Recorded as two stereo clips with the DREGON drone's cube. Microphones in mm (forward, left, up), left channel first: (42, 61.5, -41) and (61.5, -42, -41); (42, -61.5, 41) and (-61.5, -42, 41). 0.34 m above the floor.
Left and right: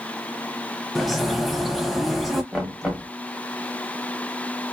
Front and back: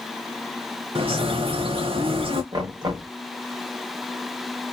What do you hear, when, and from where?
0.9 s a bird: 170° right, 0.7 m
2.5 s knocking: 165° right, 1.2 m